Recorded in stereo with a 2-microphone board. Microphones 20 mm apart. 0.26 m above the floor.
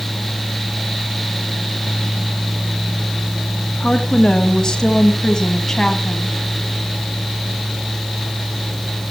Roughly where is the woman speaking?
Left.